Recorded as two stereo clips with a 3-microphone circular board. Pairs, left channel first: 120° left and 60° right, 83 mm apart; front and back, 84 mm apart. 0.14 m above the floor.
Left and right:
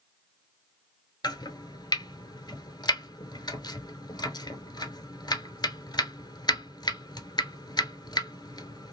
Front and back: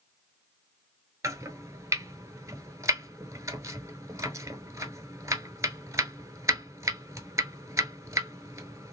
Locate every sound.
1.2 s chopping: 135° left, 0.7 m